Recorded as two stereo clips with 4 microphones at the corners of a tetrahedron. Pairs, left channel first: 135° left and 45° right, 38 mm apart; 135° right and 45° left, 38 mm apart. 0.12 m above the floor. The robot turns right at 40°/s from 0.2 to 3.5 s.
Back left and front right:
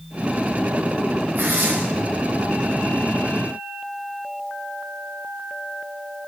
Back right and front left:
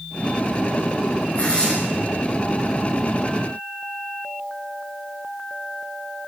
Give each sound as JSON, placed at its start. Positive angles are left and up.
{"t": 1.4, "sound": "tearing paper", "azimuth_deg": -80, "distance_m": 5.0}